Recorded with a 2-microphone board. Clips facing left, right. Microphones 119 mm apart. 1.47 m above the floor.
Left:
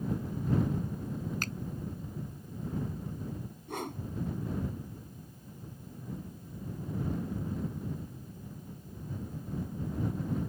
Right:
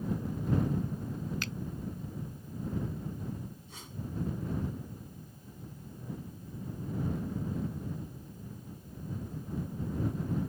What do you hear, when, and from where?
1.4 s a finger snap: 45° left (ahead or behind)
3.7 s a whoosh: 60° left (ahead or behind)